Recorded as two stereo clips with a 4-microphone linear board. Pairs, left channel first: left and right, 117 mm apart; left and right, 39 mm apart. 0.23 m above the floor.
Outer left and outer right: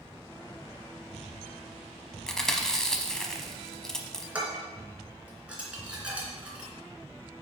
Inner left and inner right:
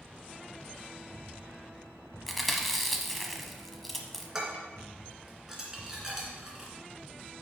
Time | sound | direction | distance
2.3 | chewing | 5° left (ahead or behind) | 0.8 m
4.3 | dishes clattering | 10° right (ahead or behind) | 2 m